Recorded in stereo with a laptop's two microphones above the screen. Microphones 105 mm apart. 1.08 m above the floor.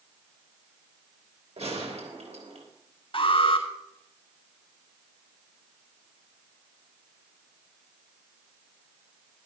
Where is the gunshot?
80° right, 3 m.